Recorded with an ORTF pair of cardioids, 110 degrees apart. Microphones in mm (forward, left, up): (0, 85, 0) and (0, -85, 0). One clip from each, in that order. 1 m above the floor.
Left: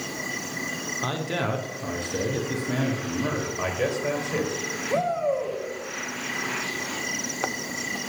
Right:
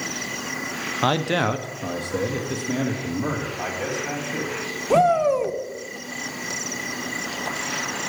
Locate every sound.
1.0 s a man speaking: 50° right, 0.6 m; by 3.5 s straight ahead, 1.8 m
3.6 s a man speaking: 45° left, 3 m
4.9 s a shout: 50° right, 1.1 m